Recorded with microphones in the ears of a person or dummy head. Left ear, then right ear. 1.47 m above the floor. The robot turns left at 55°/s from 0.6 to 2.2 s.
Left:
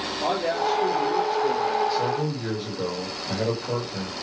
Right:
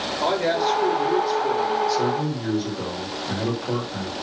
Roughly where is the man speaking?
Right.